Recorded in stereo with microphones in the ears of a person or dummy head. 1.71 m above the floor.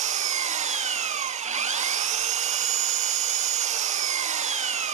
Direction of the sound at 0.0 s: 40° right (ahead or behind).